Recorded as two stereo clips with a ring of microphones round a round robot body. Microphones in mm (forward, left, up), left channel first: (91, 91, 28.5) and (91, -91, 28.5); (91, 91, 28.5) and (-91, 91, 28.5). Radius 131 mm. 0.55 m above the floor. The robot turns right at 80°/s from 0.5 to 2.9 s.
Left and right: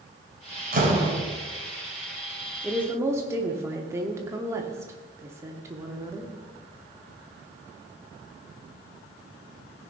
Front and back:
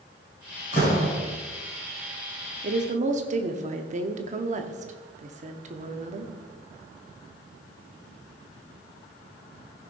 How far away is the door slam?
About 3 m.